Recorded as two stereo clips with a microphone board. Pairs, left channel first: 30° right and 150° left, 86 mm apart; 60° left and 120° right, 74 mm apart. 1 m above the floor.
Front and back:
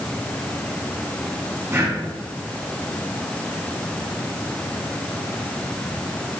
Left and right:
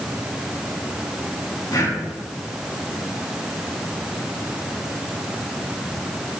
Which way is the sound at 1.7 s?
90° left.